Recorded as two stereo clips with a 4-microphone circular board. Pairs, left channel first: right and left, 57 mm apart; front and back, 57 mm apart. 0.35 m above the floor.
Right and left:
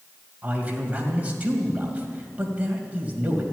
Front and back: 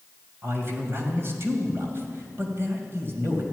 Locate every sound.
0.4 s a man speaking: 150° left, 2.5 m